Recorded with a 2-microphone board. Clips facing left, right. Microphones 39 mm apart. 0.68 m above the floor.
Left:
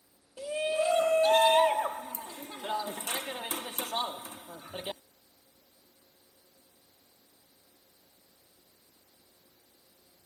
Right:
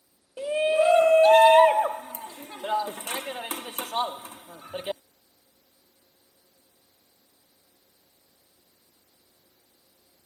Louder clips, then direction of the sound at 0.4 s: Right 8 dB; 35° right (ahead or behind).